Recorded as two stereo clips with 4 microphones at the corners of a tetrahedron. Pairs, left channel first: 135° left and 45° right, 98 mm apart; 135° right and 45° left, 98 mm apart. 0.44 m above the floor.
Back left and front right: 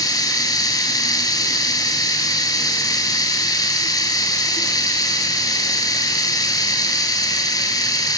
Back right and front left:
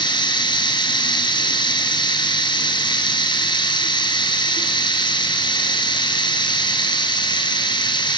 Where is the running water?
175° right, 3.5 m.